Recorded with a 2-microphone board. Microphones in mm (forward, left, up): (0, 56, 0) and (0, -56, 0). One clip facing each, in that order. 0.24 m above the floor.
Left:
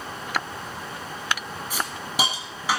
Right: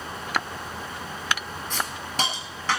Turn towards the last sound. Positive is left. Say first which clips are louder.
# left 1 dB
turn(degrees=10)  # may be behind; listen again after turning